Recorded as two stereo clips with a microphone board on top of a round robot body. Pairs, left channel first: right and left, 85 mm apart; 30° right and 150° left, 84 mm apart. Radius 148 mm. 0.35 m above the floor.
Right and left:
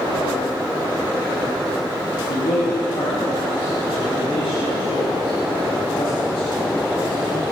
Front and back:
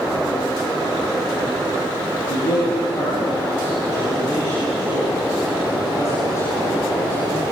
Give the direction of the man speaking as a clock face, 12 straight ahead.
2 o'clock.